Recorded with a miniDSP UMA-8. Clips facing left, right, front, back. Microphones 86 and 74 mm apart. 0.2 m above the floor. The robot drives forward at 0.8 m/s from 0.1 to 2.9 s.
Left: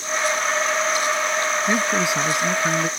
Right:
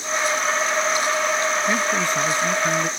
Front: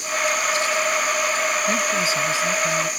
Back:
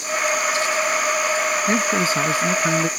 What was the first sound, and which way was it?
A man speaking, 155° left.